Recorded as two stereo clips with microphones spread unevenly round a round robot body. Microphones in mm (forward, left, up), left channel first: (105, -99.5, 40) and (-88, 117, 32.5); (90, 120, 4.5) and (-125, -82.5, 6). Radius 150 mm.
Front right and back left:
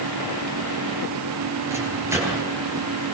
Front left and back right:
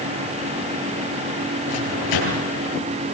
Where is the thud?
I don't hear a thud.